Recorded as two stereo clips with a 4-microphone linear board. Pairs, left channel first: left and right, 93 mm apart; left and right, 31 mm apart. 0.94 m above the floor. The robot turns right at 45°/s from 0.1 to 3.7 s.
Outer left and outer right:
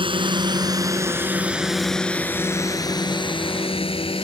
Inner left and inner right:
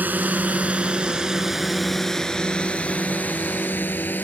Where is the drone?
65° right (ahead or behind); by 4.2 s 75° left (ahead or behind).